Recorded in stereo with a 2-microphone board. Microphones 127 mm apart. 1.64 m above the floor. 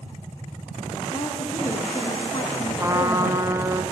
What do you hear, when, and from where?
1.1 s a woman speaking: 45° left (ahead or behind), 3.5 m
2.8 s a trumpet: 20° right (ahead or behind), 1.2 m